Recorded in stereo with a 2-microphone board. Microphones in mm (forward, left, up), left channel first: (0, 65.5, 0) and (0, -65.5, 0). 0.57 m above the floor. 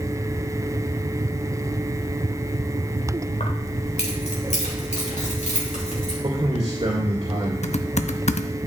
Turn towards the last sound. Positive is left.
turn(degrees=60)  # may be behind; listen again after turning